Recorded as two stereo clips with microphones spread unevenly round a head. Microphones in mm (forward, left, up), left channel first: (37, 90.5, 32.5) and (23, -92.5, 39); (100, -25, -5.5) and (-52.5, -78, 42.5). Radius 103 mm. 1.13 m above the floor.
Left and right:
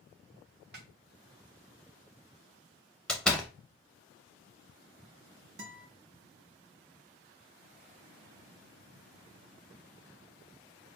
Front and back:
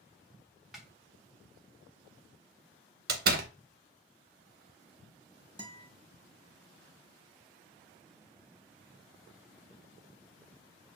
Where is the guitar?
95° right, 1.5 m.